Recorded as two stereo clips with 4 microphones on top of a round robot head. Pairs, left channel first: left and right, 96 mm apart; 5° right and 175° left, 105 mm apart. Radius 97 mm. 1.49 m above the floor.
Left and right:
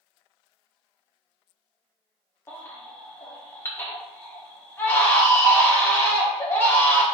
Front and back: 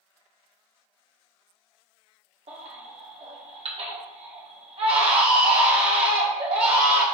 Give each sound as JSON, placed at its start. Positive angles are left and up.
{"t": 2.5, "sound": "a baby crying", "azimuth_deg": 155, "distance_m": 1.5}